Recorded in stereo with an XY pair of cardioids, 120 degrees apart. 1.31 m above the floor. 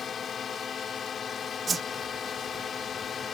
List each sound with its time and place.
0.0 s a drone: 40° left
1.7 s a whoosh: 25° right